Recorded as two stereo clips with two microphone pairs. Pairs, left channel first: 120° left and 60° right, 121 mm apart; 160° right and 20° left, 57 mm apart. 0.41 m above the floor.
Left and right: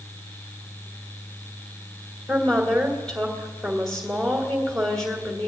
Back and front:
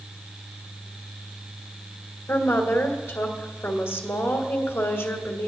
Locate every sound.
2.3 s a woman speaking: 155° right, 1.9 m